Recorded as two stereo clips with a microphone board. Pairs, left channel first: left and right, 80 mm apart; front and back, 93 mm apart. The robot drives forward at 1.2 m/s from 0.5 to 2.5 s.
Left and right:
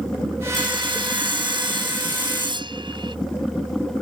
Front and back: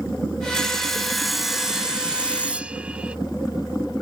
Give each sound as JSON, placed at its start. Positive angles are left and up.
{"t": 0.5, "sound": "sawing", "azimuth_deg": -85}